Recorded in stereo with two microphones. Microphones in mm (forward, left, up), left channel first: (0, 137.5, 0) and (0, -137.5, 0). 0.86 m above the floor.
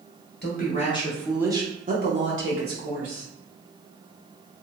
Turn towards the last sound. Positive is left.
turn(degrees=-60)  # may be behind; listen again after turning